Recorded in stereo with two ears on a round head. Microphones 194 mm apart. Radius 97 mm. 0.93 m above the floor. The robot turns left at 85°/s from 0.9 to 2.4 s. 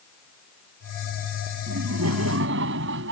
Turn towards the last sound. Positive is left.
turn(degrees=-115)